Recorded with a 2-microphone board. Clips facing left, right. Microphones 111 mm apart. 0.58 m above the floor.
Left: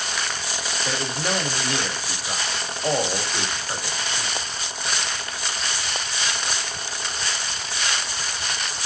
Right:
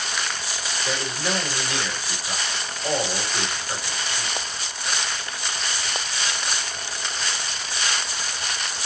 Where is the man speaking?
35° left (ahead or behind), 1.3 m.